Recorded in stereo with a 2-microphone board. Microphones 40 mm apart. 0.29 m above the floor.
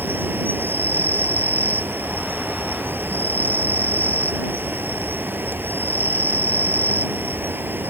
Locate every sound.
0.0 s an insect: 60° right (ahead or behind)